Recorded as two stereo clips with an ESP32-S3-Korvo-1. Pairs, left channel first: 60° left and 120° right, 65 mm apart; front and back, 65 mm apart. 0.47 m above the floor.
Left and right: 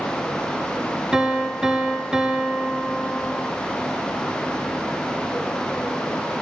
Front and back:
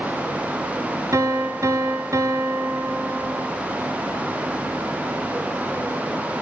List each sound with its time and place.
1.1 s a piano: 165° left, 2.5 m